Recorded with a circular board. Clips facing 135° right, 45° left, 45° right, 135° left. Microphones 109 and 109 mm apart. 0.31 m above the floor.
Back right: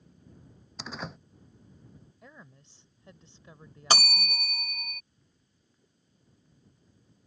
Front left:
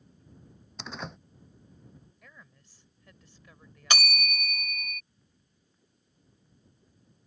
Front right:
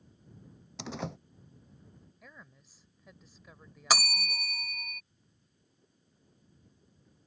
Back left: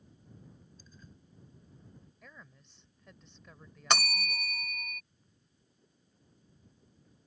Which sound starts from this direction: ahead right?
A door slam, at 0.8 s.